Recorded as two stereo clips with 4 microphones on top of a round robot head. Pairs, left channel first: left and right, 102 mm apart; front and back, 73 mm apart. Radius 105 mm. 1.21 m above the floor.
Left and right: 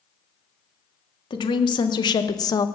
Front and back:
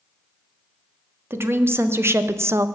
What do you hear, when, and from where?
1.3 s a woman speaking: 130° left, 1.5 m; by 2.7 s 140° left, 0.7 m